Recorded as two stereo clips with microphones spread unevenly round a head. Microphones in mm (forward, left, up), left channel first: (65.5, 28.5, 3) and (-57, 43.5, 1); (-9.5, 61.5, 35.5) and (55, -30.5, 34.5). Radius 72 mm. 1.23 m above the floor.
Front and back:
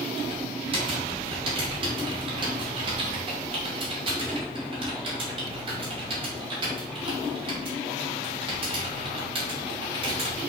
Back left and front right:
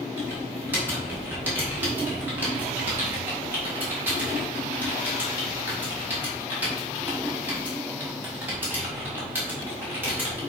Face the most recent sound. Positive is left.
turn(degrees=-130)